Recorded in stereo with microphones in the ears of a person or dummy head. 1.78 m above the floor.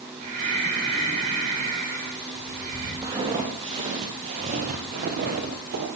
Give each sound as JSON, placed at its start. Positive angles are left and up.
{"t": 0.2, "sound": "breathing", "side_deg": -50, "distance_m": 8.5}
{"t": 3.0, "sound": "footsteps", "side_deg": -15, "distance_m": 2.5}